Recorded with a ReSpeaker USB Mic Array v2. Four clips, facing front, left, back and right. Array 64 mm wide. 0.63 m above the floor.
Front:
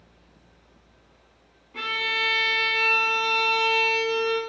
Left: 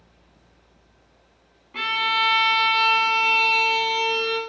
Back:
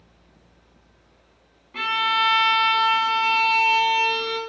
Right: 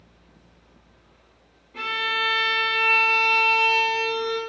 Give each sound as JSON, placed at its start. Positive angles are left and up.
{"t": 1.7, "sound": "a violin", "azimuth_deg": 125, "distance_m": 0.7}